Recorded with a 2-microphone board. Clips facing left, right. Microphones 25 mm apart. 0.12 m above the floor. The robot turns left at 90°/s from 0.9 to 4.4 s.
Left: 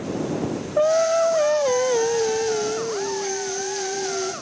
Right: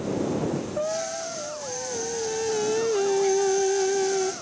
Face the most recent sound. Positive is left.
turn(degrees=-170)